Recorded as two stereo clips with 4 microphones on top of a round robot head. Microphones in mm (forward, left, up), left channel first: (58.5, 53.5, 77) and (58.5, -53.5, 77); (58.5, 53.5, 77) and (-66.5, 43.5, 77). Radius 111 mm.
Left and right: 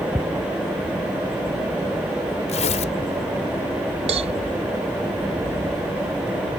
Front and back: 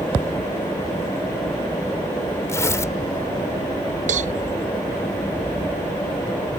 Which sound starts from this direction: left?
Tearing paper, at 2.5 s.